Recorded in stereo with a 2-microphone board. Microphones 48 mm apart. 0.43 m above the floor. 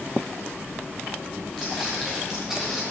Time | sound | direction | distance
1.6 | footsteps | centre (ahead or behind) | 2.5 m